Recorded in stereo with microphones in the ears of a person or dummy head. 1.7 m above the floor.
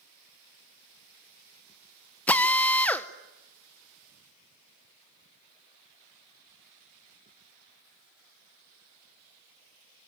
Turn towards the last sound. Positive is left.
turn(degrees=10)  # may be behind; listen again after turning